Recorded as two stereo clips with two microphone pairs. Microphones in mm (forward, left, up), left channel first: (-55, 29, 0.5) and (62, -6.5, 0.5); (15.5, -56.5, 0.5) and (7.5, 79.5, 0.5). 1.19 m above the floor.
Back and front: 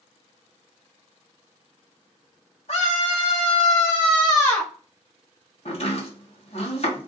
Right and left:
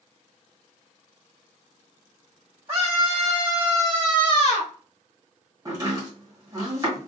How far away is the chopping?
About 1.7 m.